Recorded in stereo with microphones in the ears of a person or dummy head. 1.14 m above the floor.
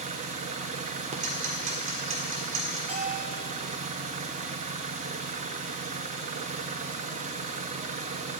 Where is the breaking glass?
I don't hear breaking glass.